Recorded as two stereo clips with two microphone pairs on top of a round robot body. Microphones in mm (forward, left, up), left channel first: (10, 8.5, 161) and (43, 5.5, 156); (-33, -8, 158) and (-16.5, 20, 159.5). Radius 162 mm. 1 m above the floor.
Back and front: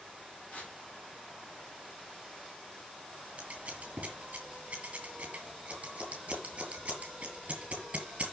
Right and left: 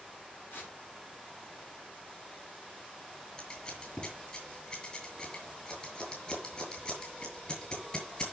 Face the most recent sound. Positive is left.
turn(degrees=-60)